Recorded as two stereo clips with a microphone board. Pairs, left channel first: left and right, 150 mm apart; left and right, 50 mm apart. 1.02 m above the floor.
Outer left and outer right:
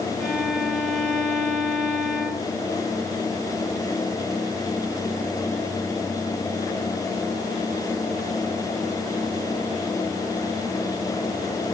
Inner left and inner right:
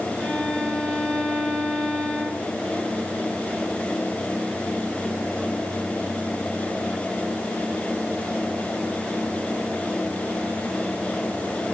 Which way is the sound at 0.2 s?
10° left (ahead or behind).